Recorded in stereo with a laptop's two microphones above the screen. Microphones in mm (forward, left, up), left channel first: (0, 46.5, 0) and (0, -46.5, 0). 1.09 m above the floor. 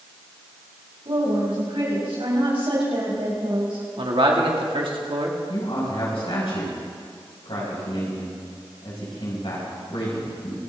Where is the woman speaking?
80° right, 6.5 m; by 3.9 s 60° right (ahead or behind), 5 m.